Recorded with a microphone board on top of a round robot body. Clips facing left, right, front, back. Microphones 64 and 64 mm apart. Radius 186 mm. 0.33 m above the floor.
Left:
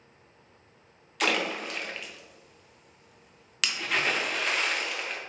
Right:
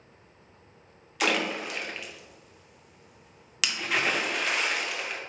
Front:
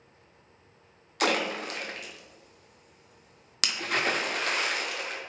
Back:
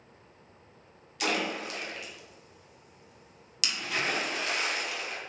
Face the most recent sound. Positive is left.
turn(degrees=0)